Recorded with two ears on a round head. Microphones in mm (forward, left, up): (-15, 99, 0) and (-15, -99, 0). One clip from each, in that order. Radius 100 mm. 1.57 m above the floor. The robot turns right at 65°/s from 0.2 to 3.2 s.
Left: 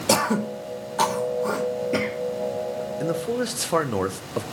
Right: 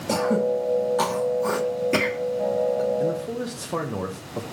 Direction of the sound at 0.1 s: 45° left (ahead or behind).